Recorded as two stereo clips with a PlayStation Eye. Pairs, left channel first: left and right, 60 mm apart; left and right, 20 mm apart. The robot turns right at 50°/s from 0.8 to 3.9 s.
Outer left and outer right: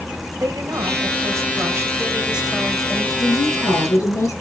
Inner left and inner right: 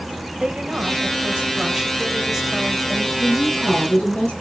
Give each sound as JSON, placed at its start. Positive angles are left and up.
{"t": 0.3, "sound": "a woman speaking", "azimuth_deg": -90, "distance_m": 3.0}
{"t": 3.2, "sound": "a woman speaking", "azimuth_deg": 80, "distance_m": 9.0}